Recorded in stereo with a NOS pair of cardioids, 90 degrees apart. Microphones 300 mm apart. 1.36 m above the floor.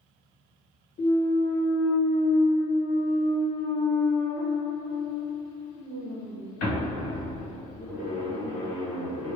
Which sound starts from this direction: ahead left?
A clunk, at 1.0 s.